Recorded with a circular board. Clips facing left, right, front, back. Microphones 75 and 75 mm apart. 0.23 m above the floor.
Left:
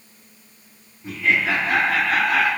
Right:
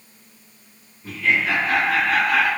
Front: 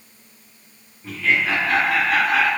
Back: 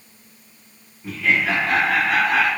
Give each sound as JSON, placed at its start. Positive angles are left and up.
{"t": 1.0, "sound": "laughter", "azimuth_deg": 105, "distance_m": 1.0}